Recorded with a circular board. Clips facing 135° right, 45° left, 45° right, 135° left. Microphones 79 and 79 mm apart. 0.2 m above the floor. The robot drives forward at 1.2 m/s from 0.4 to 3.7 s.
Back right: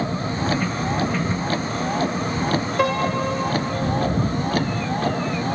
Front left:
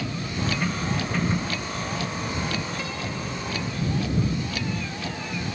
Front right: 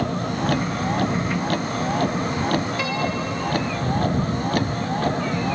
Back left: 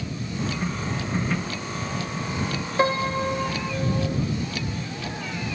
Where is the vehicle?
80° right; by 5.5 s 90° right.